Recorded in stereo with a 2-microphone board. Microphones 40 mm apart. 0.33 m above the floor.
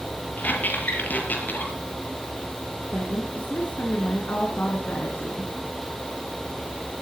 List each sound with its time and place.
0.4 s a squeak: 45° left (ahead or behind), 5.5 m
2.9 s a woman speaking: 50° left (ahead or behind), 5 m